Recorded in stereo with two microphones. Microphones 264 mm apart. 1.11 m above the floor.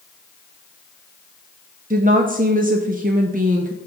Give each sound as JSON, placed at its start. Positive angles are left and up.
{"t": 1.9, "sound": "a woman speaking", "side_deg": -35, "distance_m": 0.6}